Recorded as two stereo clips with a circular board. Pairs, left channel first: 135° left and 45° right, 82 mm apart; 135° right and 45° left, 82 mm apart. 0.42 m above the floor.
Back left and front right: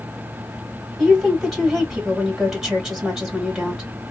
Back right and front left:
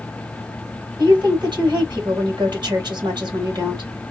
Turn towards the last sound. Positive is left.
turn(degrees=45)